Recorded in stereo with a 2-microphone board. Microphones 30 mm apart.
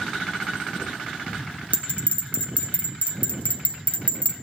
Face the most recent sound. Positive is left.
turn(degrees=60)  # may be behind; listen again after turning